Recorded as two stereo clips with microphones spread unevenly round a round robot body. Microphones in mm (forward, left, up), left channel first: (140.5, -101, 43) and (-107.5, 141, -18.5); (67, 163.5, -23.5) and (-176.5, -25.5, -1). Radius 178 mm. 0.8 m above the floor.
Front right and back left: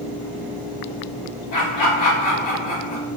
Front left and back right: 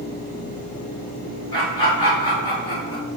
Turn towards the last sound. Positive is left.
turn(degrees=-35)